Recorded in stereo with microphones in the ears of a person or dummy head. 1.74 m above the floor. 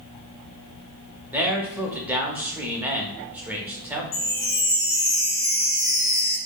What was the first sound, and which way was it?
A man speaking, 10° right (ahead or behind).